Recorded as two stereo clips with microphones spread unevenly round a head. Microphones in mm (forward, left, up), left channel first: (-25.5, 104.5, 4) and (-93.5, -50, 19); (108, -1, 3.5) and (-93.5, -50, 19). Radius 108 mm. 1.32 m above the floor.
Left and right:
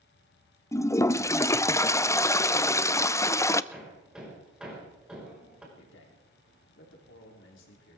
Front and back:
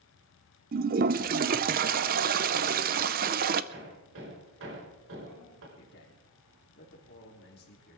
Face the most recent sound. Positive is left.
turn(degrees=60)